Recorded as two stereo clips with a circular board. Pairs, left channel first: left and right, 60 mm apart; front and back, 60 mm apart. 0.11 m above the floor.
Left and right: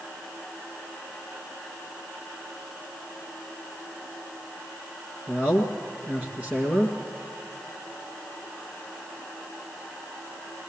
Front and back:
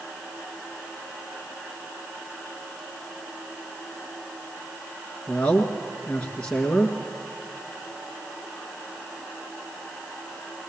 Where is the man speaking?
50° right, 2 m.